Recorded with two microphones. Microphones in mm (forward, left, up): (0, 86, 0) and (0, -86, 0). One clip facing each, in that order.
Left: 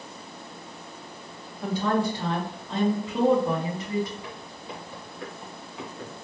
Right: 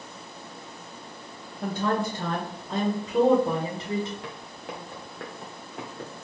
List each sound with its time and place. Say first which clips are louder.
1.6 s a woman speaking: left 2 dB; 55° right (ahead or behind), 1.7 m; by 4.1 s 25° right (ahead or behind), 1.5 m
4.2 s footsteps: right 1 dB; 75° right (ahead or behind), 2 m; by 6.1 s 35° right (ahead or behind), 1.9 m